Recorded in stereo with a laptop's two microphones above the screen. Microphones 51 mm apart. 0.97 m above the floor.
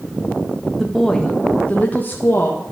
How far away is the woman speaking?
About 1.1 m.